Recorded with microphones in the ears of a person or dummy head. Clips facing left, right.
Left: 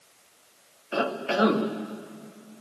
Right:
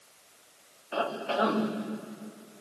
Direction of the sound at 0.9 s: 30° left (ahead or behind).